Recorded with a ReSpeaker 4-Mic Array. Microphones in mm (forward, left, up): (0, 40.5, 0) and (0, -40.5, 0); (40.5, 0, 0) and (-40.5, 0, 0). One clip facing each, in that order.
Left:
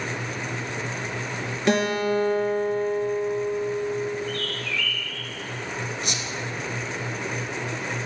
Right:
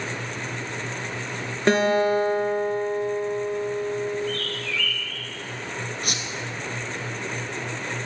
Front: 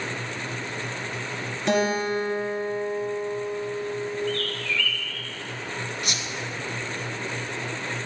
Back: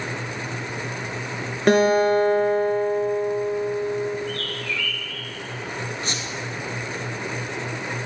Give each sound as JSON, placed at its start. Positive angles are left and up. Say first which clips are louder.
{"t": 1.7, "sound": "a guitar", "louder": "right 3 dB, back 7 dB", "azimuth_deg": -140, "distance_m": 2.5}
{"t": 4.3, "sound": "a bird", "louder": "even, front 1 dB", "azimuth_deg": -105, "distance_m": 4.5}
{"t": 6.0, "sound": "a squeak", "louder": "even, back 2 dB", "azimuth_deg": -125, "distance_m": 1.5}